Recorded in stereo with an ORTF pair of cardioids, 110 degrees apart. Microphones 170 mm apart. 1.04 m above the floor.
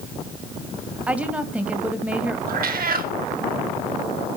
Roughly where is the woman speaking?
Ahead.